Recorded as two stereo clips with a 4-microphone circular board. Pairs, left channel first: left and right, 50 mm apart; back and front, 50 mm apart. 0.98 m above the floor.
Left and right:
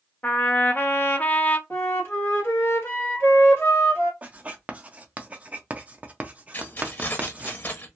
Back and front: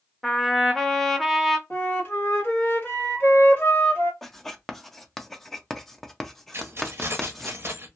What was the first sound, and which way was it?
A trumpet, 95° left.